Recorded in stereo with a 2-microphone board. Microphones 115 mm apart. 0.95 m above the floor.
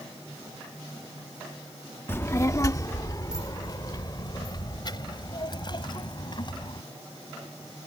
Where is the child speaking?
20° left (ahead or behind); by 6.8 s 45° left (ahead or behind).